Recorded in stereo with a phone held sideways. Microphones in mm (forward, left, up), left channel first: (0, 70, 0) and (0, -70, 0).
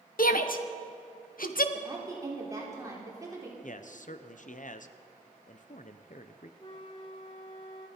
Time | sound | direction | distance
0.2 | a shout | 85° left | 1.0 m
1.7 | a woman speaking | 25° right (ahead or behind) | 3.5 m
3.6 | a man speaking | 65° left (ahead or behind) | 0.7 m
6.6 | a flute | 35° left (ahead or behind) | 1.8 m